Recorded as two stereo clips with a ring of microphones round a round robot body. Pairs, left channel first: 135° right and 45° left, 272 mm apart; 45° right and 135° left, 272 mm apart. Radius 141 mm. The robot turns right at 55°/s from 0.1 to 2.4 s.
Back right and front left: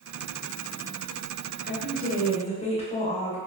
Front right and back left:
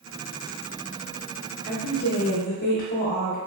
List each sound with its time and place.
1.6 s a woman speaking: 125° right, 1.2 m; by 3.4 s 80° right, 1.2 m